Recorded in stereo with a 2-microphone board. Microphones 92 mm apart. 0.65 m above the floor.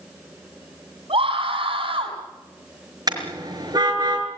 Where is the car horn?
45° right (ahead or behind), 5 m.